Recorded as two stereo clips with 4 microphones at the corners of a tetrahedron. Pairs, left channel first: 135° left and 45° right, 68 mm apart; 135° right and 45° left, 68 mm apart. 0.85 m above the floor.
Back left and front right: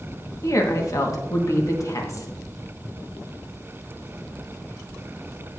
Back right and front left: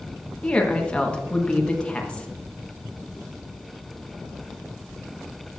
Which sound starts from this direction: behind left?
A woman speaking, at 0.4 s.